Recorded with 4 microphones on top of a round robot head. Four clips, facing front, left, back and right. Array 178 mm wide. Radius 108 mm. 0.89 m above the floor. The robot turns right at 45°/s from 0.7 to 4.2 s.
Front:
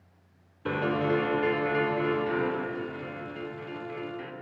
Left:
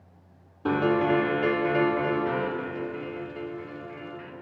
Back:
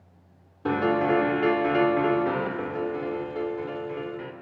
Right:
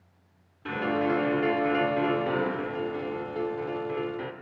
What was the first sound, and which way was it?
A piano, 140° left.